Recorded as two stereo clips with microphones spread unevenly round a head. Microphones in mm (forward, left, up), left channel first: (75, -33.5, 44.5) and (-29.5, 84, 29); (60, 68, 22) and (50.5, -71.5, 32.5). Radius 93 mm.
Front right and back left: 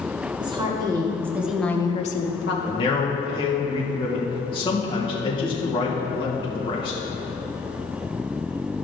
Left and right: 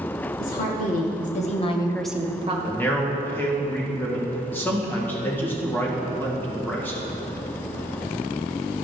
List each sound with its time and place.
0.4 s a woman speaking: 70° left, 2.5 m; by 2.5 s 45° right, 1.0 m
2.6 s a man speaking: 10° left, 2.0 m